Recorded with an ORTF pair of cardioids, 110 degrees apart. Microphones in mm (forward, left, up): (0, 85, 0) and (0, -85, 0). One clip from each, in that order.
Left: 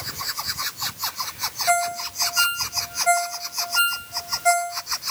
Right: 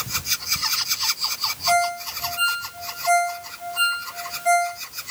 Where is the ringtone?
40° left, 1.3 m.